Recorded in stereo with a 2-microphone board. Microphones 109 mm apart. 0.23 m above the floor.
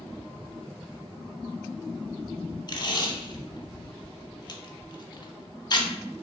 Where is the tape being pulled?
40° left (ahead or behind), 0.6 m.